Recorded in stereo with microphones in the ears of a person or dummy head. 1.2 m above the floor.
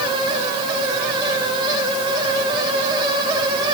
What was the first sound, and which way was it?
Only background noise.